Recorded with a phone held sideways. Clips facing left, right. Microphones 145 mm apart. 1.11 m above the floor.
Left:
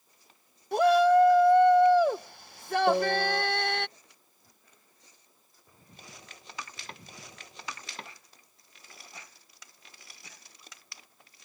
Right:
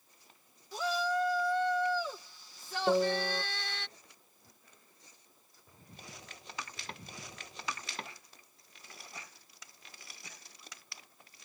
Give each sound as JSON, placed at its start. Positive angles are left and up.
{"t": 0.7, "sound": "a shout", "side_deg": 65}
{"t": 2.9, "sound": "a piano", "side_deg": 5}